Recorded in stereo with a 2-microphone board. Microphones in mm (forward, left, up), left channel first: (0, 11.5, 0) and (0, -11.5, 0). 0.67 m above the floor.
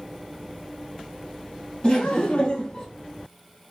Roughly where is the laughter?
Left.